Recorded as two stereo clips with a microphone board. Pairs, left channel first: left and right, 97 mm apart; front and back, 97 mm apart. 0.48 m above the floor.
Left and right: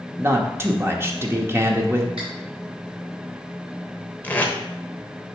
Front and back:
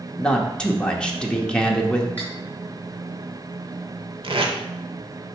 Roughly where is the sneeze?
No sneeze in this recording.